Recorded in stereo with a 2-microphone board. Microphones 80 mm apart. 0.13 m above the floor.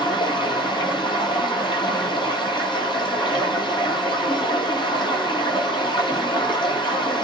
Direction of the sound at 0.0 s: 80° left.